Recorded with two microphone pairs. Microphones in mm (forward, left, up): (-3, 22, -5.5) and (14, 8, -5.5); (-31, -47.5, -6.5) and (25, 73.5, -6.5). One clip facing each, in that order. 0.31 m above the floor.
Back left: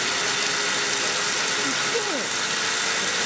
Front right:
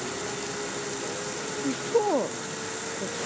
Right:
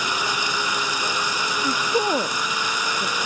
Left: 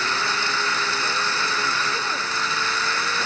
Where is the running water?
170° left.